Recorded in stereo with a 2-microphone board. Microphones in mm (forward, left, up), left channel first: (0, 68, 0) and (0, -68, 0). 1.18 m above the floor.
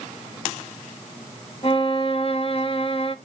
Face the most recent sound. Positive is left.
turn(degrees=45)  # may be behind; listen again after turning